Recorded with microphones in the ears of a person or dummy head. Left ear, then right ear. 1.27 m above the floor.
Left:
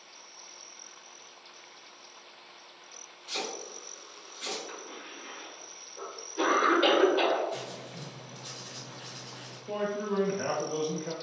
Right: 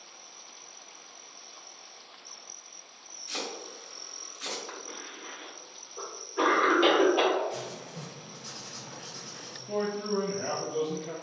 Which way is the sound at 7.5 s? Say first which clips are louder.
Even; 55° right (ahead or behind).